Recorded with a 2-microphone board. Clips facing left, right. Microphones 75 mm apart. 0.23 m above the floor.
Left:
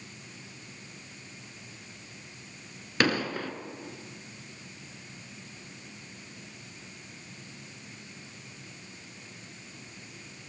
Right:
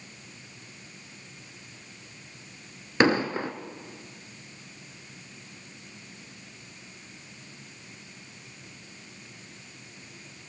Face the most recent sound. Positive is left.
turn(degrees=-20)  # may be behind; listen again after turning